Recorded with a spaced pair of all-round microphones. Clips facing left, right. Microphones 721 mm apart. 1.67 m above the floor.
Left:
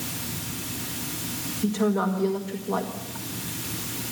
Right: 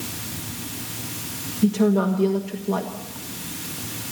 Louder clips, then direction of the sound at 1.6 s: Right 5 dB; 55° right (ahead or behind).